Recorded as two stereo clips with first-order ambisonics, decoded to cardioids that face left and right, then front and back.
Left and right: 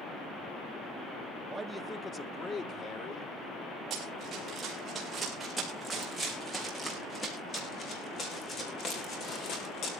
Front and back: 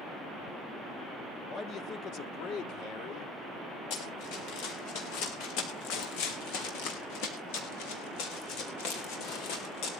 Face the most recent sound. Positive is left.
turn(degrees=40)